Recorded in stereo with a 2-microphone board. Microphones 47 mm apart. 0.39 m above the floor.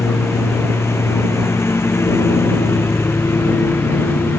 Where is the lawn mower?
75° left (ahead or behind); by 4.4 s 60° left (ahead or behind).